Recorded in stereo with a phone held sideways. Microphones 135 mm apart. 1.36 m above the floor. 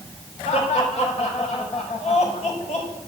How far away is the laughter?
About 5 m.